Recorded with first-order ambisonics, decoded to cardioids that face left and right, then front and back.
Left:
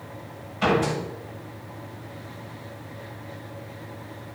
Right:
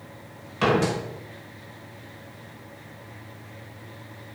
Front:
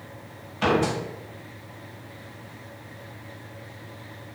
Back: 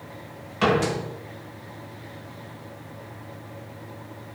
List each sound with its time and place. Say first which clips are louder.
0.6 s a door slam: even, back 1 dB; 140° right, 5.5 m